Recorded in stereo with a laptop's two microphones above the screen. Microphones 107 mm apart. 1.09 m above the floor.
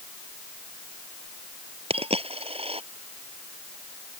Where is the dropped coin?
75° right (ahead or behind).